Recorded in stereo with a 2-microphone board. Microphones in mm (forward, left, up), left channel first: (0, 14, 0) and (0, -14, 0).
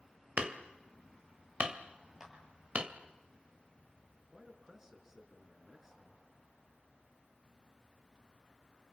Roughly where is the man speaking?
Centre.